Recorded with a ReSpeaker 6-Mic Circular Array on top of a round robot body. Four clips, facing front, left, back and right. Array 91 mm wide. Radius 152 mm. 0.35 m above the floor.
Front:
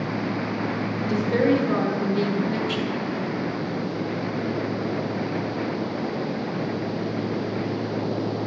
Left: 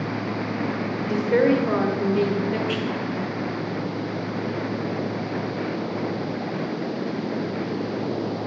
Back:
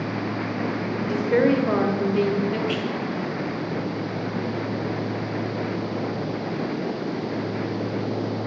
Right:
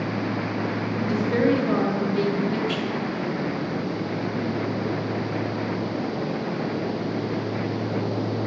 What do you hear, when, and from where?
1.0 s a woman speaking: 150° left, 0.9 m